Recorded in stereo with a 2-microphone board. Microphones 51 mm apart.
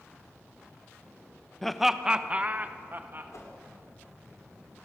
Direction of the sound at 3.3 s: 80° left.